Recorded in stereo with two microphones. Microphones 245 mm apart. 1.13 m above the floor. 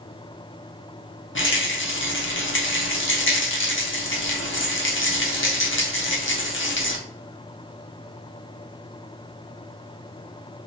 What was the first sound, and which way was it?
A rattle, 55° left (ahead or behind).